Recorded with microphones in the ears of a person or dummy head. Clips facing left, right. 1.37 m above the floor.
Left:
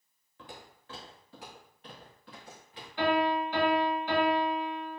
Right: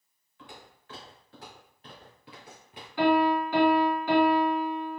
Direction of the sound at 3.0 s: 55° right (ahead or behind).